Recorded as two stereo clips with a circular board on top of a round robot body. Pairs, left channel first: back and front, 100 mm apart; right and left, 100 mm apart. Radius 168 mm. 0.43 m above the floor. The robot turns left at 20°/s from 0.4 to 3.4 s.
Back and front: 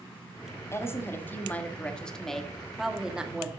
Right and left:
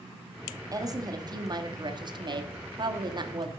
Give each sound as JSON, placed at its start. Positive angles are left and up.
{"t": 0.7, "sound": "a woman speaking", "azimuth_deg": 130, "distance_m": 1.6}